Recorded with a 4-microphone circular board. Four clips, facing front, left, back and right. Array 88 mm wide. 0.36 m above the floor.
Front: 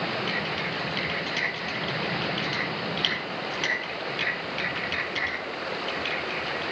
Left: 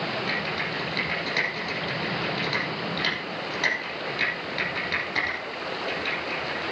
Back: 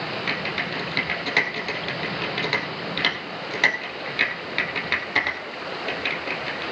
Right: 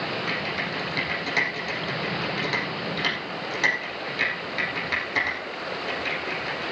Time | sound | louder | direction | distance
0.3 | typing on a keyboard | even, back 2 dB | 175° right | 4.5 m